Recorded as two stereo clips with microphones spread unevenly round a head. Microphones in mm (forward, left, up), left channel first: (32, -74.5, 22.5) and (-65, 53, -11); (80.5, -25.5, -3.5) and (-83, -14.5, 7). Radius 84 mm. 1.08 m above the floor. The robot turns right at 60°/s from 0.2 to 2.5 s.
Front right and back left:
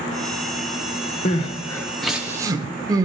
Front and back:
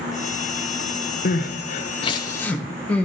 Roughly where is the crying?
Ahead.